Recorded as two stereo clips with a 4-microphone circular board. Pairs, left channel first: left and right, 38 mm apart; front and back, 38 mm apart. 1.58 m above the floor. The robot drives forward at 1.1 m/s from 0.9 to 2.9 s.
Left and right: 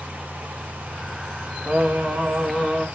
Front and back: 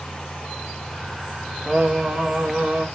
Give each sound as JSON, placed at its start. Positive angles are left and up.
{"t": 1.7, "sound": "singing", "azimuth_deg": -105, "distance_m": 1.4}